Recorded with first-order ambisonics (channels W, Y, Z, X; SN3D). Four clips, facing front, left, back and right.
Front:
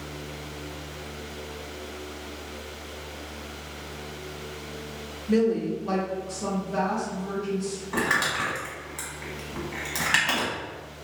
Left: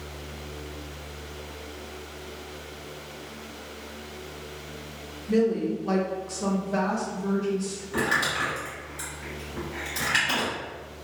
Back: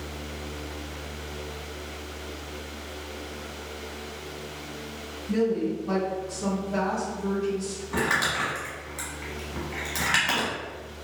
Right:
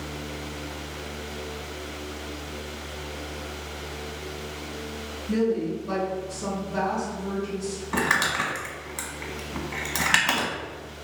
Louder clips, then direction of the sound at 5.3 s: Left 1 dB, front 2 dB; 10° left.